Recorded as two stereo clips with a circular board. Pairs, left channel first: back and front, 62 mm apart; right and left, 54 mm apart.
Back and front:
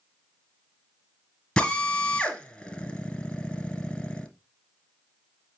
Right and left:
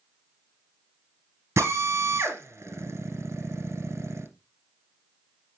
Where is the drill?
100° left, 1.7 m.